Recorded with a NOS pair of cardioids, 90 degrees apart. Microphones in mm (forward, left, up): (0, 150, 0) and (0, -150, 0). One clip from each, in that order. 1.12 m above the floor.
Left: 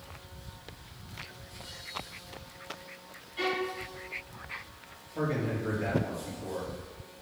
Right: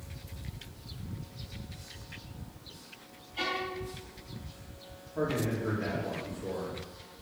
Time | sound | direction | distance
3.4 | a violin | 35° right | 2.5 m
5.2 | a man speaking | 5° left | 3 m